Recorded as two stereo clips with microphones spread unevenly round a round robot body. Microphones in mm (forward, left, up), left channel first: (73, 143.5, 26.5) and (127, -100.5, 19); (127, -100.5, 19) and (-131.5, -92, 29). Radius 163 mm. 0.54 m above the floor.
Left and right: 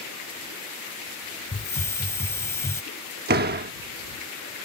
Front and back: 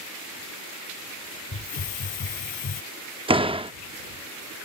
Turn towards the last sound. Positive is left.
turn(degrees=-115)